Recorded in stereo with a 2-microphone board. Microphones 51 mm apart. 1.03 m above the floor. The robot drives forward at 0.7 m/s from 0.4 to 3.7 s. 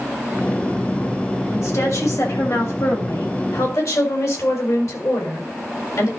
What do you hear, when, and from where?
1.5 s a woman speaking: 70° left (ahead or behind), 6.5 m; by 6.1 s 80° left, 6 m